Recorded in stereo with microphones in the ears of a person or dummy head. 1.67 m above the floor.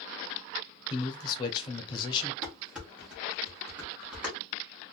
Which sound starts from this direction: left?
A man speaking, at 0.9 s.